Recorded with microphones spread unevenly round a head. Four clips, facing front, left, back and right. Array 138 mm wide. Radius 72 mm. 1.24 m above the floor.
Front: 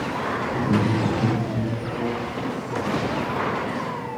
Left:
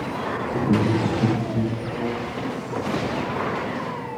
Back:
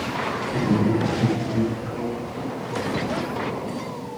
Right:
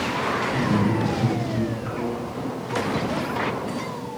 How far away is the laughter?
About 3 m.